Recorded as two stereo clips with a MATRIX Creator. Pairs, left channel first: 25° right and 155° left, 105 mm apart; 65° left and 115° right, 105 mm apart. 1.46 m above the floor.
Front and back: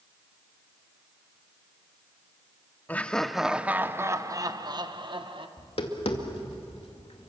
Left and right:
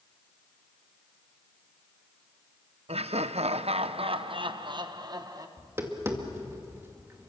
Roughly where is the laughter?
Right.